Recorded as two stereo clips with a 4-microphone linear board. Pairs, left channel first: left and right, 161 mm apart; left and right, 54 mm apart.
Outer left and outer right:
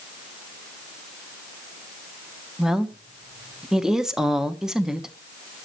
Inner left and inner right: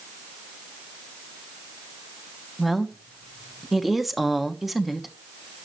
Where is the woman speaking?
5° right (ahead or behind), 1.1 m.